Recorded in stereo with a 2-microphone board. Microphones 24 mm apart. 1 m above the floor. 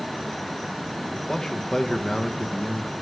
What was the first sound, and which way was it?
A man speaking, 30° left (ahead or behind).